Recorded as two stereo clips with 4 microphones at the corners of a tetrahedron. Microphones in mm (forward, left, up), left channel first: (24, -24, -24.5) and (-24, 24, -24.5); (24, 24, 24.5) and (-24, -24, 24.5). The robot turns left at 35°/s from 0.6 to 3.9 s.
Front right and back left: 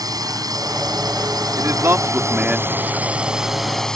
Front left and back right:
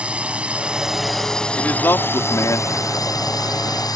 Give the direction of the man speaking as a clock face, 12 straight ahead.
9 o'clock.